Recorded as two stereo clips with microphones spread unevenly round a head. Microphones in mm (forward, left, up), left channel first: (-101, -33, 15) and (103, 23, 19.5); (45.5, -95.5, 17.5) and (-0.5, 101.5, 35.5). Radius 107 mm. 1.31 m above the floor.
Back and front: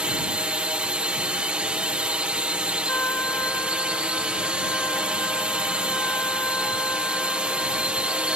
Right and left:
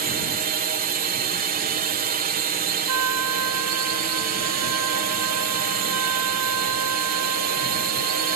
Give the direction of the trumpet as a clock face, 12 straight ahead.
8 o'clock.